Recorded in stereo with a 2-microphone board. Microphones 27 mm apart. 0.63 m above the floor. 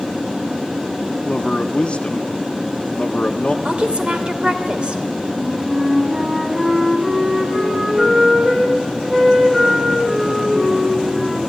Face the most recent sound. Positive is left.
turn(degrees=-20)  # may be behind; listen again after turning